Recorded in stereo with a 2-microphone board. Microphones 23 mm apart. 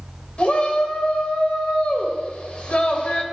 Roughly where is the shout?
Left.